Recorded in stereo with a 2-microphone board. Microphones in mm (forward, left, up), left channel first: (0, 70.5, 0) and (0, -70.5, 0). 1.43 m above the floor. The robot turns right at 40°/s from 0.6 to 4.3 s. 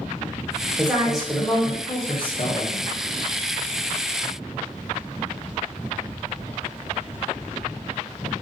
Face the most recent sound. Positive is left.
turn(degrees=125)